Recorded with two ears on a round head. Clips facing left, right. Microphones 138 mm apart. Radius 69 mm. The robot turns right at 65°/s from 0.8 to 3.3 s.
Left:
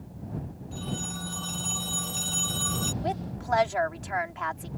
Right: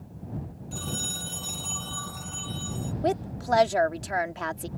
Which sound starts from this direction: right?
A woman speaking, at 3.0 s.